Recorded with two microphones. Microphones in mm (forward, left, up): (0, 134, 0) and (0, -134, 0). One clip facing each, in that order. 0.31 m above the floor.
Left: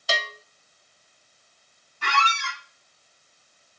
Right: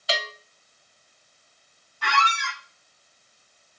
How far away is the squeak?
About 1.1 m.